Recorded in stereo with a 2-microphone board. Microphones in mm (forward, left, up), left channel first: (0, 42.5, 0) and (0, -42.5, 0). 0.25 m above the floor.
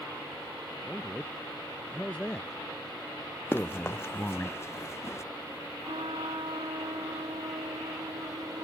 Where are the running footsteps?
25° left (ahead or behind); by 5.2 s 30° left (ahead or behind).